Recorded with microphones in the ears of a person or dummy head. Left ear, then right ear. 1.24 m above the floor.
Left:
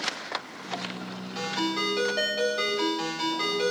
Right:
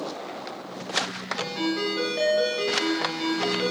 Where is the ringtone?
35° left (ahead or behind), 5 m.